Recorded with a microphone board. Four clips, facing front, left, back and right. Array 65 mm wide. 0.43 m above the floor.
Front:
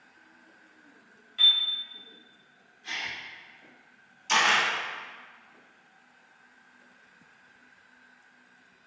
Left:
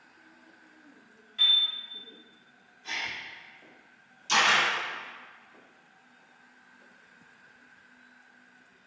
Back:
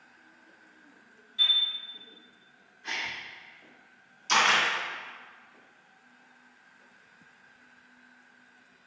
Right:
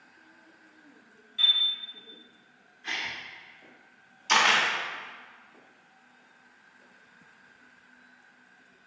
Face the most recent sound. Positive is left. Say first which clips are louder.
# right 1 dB, even
turn(degrees=-80)